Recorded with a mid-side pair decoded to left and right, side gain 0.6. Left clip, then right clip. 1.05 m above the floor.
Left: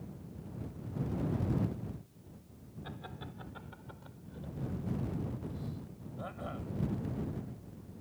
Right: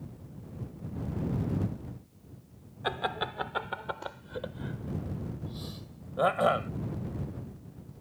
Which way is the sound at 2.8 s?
70° right.